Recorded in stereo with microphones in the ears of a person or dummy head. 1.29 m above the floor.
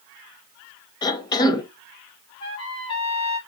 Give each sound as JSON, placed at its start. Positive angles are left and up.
{"t": 1.0, "sound": "a cough", "side_deg": 20, "distance_m": 0.7}
{"t": 2.4, "sound": "a trumpet", "side_deg": 30, "distance_m": 0.9}